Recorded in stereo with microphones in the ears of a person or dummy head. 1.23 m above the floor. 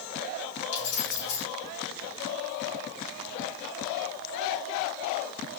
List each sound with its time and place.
0.7 s keys jangling: 90° left, 3.5 m